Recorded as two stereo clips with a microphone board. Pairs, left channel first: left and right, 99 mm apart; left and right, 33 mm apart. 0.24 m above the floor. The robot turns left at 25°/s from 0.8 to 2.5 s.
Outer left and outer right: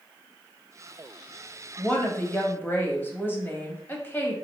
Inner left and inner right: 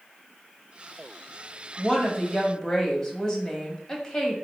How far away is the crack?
No crack in this recording.